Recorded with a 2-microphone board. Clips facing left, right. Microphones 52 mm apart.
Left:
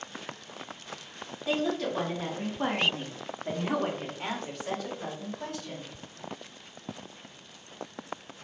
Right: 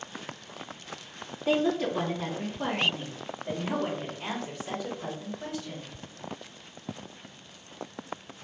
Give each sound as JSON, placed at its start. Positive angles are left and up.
{"t": 1.5, "sound": "a woman speaking", "side_deg": -25, "distance_m": 0.8}